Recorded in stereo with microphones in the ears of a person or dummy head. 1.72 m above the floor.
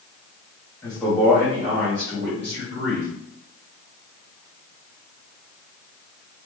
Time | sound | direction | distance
0.8 | a man speaking | 5° left (ahead or behind) | 0.8 m